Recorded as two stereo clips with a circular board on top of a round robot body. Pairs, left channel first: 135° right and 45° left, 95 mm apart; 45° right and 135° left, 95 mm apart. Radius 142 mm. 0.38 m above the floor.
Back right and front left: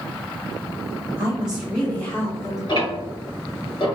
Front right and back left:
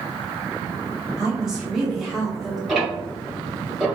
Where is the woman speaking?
65° left, 1.4 m; by 2.6 s 135° right, 1.5 m.